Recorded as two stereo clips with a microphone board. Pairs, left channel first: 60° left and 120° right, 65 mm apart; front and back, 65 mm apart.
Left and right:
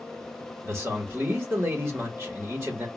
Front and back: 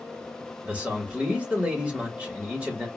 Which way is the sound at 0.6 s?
120° right.